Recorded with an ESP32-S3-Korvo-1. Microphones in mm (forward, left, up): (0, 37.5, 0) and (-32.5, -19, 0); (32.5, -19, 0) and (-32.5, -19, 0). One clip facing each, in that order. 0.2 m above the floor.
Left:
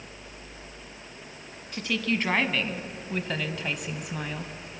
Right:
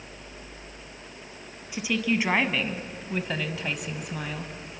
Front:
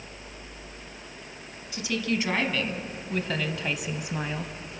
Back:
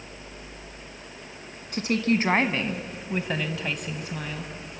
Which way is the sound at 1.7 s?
165° left.